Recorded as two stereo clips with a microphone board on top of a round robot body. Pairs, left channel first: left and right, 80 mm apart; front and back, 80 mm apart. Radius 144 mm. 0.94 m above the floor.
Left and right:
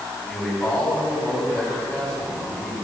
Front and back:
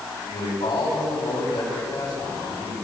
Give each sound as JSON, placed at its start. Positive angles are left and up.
{"t": 0.2, "sound": "a man speaking", "azimuth_deg": 20, "distance_m": 8.5}